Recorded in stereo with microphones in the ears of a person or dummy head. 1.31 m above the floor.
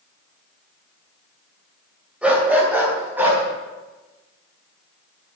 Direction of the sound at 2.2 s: 5° right (ahead or behind).